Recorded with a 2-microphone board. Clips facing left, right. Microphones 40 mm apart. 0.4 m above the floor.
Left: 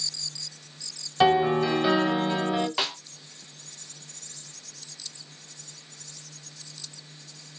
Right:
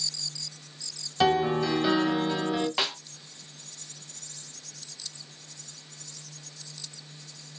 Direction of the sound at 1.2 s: 15° left (ahead or behind).